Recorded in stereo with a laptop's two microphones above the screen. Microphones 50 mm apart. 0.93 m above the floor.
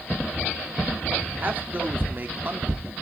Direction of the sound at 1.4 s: 35° right (ahead or behind).